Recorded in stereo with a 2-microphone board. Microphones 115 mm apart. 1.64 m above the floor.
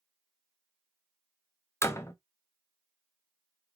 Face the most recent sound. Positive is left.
turn(degrees=25)  # may be behind; listen again after turning